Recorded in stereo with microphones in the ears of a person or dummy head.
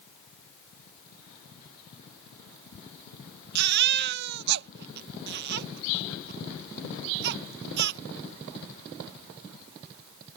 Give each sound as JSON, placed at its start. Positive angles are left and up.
{"t": 3.5, "sound": "a baby crying", "side_deg": -60}